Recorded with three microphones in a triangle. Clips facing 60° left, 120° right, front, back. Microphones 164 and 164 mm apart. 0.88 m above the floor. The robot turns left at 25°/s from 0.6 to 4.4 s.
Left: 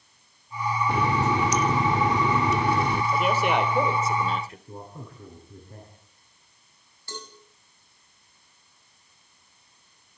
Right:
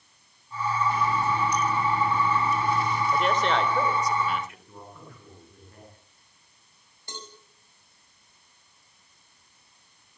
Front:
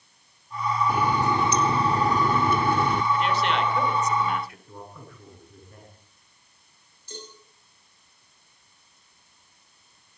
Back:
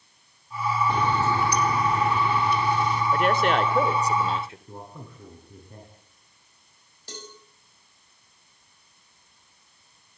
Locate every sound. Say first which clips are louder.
0.9 s a running tap: left 5 dB, front 1 dB; 85° left, 1.7 m; by 3.0 s 30° left, 1.7 m
3.1 s a man speaking: left 1 dB, back 3 dB; 150° left, 3.5 m; by 4.6 s 115° left, 3.5 m
4.7 s a man speaking: left 5 dB, back 1 dB; 115° left, 9 m
7.1 s a cowbell: left 3 dB, even; 170° left, 7.5 m